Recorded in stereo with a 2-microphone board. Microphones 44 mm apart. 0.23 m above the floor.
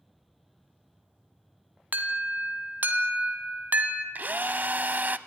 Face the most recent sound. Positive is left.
turn(degrees=-40)  # may be behind; listen again after turning